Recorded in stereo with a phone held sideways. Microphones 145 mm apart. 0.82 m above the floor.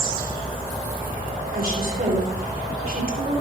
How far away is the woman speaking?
About 4.5 m.